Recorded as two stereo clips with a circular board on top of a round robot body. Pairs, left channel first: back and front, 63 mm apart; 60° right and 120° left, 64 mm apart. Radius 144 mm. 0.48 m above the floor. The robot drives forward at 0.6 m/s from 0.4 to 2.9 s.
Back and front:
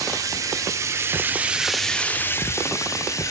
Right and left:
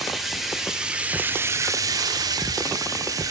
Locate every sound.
0.0 s running water: 35° left, 1.0 m; by 3.3 s 145° left, 0.9 m